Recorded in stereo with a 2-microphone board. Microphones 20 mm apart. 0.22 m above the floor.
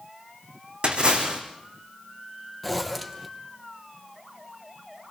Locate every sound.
0.8 s a splash: 50° right (ahead or behind), 5.5 m
2.6 s a zipper: 5° left (ahead or behind), 2.5 m